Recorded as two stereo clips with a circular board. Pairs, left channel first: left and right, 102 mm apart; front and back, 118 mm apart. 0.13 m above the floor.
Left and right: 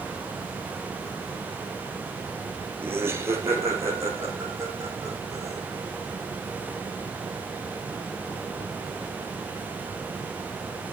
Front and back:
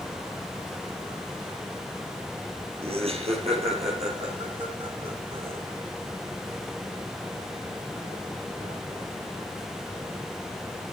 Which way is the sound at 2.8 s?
155° right.